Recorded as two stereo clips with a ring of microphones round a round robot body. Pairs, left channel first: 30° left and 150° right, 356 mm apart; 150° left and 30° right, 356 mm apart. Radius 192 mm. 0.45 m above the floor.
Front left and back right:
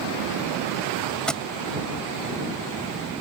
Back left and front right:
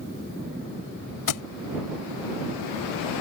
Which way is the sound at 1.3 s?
120° left.